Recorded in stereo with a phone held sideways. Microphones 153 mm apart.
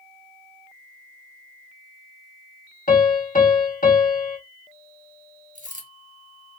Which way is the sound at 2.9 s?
65° left (ahead or behind).